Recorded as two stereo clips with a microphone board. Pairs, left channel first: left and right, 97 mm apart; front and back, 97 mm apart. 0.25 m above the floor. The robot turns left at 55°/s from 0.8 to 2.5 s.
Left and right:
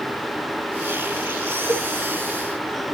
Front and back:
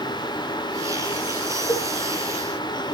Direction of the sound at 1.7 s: 15° right.